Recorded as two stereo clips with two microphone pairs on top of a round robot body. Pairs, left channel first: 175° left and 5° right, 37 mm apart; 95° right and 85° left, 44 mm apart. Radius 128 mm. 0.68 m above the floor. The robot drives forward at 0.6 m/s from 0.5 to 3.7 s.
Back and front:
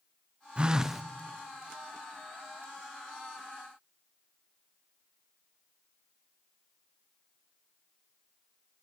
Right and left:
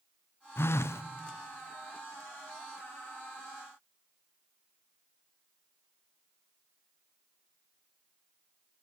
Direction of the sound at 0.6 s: 70° right.